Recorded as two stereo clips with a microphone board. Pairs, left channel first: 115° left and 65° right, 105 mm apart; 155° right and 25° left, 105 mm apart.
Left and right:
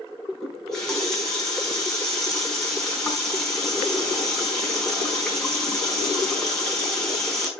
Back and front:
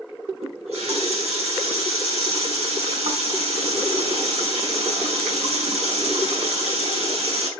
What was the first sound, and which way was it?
A running tap, 30° left.